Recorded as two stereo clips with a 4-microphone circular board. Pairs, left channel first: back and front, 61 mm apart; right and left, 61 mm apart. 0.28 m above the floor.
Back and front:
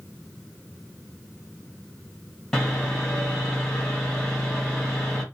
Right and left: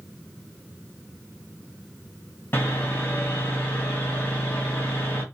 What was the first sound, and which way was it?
Sawing, 100° right.